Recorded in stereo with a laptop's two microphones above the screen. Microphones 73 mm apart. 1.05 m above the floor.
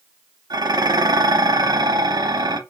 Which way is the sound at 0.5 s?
55° right (ahead or behind).